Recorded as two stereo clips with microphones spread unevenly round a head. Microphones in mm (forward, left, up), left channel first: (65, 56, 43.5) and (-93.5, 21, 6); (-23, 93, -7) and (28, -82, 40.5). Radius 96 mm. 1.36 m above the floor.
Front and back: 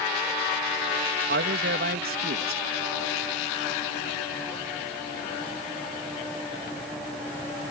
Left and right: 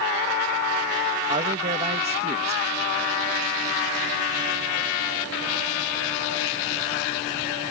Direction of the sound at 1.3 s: 135° right.